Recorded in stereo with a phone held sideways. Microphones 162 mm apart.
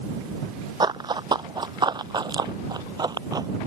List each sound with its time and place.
0.8 s running footsteps: 25° right (ahead or behind)